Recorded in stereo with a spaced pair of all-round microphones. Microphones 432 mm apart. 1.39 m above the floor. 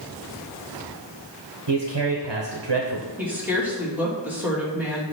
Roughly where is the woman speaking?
Centre.